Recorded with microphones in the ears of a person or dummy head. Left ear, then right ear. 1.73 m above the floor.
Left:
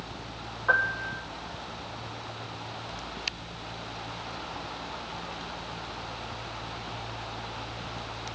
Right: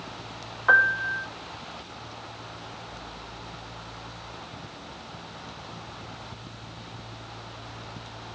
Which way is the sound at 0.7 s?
40° right (ahead or behind).